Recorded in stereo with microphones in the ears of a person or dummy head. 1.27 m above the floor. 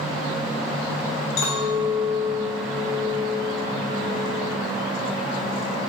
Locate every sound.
1.4 s a clink: 70° left (ahead or behind), 1.1 m